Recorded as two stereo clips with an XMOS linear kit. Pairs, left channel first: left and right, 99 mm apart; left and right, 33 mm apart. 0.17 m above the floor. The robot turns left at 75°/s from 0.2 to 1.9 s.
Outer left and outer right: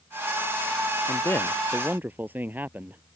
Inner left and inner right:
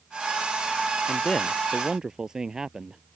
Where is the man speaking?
45° left; by 3.0 s 20° right.